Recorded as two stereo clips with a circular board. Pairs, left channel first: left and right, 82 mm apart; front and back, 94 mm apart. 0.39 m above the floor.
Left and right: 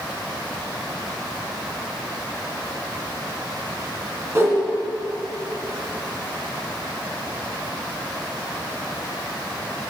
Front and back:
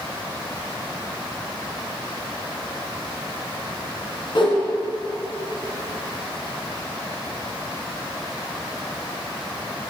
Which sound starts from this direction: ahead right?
A whoosh, at 4.3 s.